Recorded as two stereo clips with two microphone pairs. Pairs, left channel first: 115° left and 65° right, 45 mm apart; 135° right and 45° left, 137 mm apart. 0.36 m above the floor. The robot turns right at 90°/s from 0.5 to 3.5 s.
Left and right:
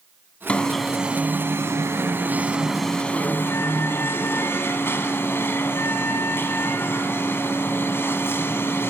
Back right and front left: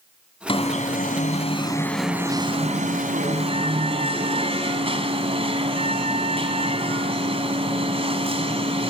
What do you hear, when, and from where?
0.5 s an alarm: 175° left, 2.5 m; by 8.9 s 85° left, 2.5 m